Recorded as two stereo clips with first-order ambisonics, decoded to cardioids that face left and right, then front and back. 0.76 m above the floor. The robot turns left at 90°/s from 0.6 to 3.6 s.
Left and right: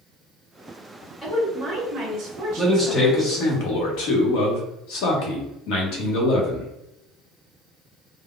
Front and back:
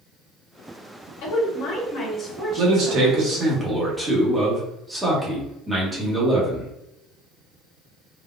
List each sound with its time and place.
1.2 s a woman speaking: 10° left, 1.8 m; by 3.6 s 155° left, 1.8 m
2.6 s a man speaking: 170° right, 1.0 m; by 6.7 s 100° left, 1.0 m